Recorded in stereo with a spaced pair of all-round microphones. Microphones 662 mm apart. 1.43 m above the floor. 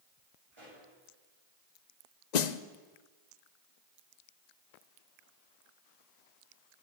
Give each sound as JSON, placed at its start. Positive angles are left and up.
{"t": 0.5, "sound": "a pop", "side_deg": -50, "distance_m": 6.5}
{"t": 2.3, "sound": "a snare drum", "side_deg": 85, "distance_m": 0.7}